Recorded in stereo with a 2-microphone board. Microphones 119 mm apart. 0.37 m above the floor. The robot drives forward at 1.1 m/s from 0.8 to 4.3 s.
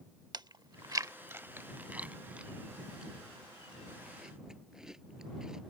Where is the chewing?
35° right (ahead or behind); by 5.6 s 5° right (ahead or behind).